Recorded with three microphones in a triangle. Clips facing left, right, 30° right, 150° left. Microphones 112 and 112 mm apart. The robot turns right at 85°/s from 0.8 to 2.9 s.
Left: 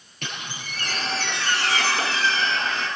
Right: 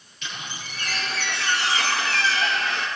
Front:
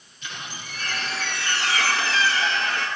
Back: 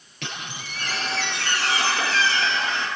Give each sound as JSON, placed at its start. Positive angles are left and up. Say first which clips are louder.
{"t": 0.2, "sound": "a squeak", "louder": "left 1 dB, back 2 dB", "azimuth_deg": 125, "distance_m": 8.5}